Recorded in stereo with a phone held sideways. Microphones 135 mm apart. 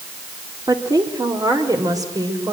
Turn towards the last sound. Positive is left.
turn(degrees=-25)  # may be behind; listen again after turning